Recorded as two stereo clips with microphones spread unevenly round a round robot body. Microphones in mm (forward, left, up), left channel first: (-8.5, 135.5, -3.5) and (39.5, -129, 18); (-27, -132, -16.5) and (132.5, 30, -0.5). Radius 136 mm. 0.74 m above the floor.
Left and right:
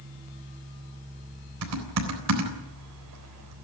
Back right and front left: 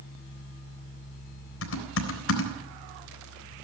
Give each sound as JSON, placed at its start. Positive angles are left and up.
{"t": 1.6, "sound": "typing on a keyboard", "azimuth_deg": -115, "distance_m": 3.5}